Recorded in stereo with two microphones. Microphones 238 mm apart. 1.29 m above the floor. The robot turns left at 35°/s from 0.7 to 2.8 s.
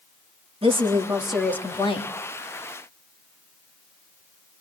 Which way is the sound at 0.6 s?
160° right.